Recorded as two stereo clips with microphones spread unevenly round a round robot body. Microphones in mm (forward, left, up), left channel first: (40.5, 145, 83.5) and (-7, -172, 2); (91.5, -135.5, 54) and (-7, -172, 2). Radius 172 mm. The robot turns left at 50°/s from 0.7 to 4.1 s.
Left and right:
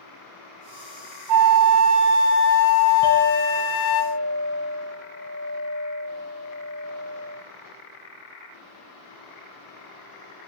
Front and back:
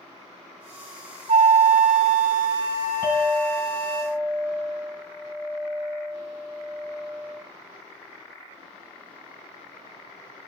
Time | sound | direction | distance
1.3 | a flute | 120° right | 0.5 m
3.0 | a clink | 35° right | 3 m